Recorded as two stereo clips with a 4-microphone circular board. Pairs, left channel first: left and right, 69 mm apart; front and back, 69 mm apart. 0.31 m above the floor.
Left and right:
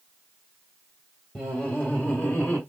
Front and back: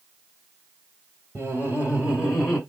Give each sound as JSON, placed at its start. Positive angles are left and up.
{"t": 1.4, "sound": "laughter", "azimuth_deg": 160, "distance_m": 1.5}